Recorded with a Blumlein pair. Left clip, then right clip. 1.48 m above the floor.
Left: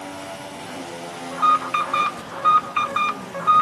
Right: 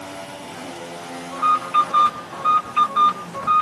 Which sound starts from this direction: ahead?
An alarm, at 1.3 s.